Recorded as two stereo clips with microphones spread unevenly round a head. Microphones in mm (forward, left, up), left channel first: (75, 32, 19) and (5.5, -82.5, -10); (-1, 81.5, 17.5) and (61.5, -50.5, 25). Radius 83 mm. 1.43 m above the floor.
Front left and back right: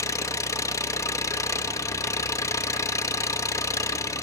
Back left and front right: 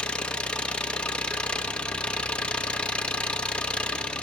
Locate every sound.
0.0 s an engine running: 30° left, 0.8 m